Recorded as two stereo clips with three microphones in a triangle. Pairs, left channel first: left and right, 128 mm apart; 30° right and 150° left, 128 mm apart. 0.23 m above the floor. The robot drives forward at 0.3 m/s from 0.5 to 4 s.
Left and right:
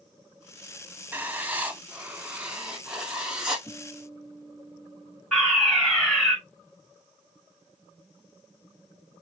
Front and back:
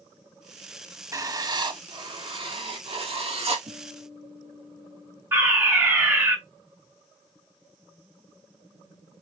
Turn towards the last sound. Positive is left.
turn(degrees=170)